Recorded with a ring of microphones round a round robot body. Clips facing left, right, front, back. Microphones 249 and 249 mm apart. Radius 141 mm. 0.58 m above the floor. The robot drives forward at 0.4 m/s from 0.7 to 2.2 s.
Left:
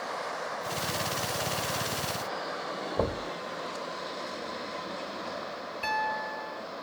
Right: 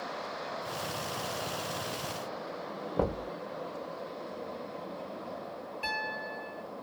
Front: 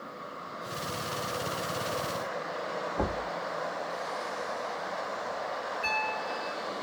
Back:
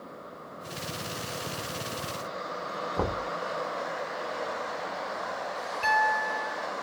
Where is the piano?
170° left, 1.1 m.